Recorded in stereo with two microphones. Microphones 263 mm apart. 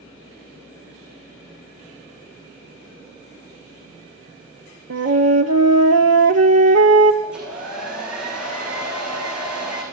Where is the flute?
70° right (ahead or behind), 0.8 m.